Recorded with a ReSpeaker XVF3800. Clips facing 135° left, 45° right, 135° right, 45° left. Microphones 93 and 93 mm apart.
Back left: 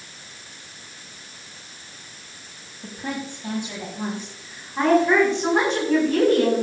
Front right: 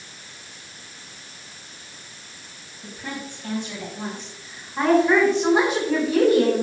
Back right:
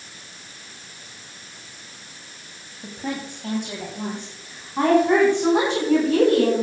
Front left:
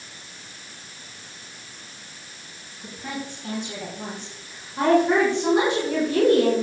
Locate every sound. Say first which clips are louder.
2.8 s a woman speaking: back left 3 dB, back right 3 dB; 165° right, 3 m; by 6.6 s 125° right, 6 m